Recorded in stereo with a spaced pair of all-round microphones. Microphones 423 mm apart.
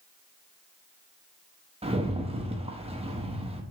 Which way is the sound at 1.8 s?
15° right (ahead or behind).